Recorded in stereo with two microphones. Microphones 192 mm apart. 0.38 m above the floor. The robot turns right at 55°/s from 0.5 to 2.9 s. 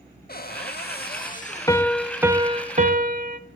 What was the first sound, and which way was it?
A cupboard door, 75° left.